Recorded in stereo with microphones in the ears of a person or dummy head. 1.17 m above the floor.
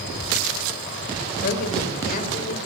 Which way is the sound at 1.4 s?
60° left (ahead or behind).